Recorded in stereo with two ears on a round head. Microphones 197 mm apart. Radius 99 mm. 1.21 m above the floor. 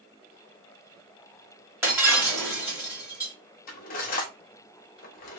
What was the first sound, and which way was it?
Breaking glass, 10° right (ahead or behind).